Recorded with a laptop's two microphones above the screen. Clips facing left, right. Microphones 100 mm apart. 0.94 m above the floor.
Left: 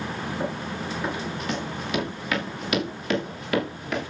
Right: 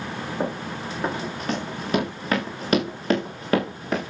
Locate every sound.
0.4 s running footsteps: 45° right (ahead or behind), 8 m; by 4.1 s 40° right (ahead or behind), 6 m